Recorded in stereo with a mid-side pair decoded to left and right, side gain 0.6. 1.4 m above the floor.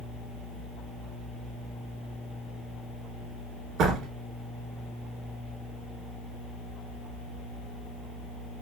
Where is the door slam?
60° right, 2.5 m.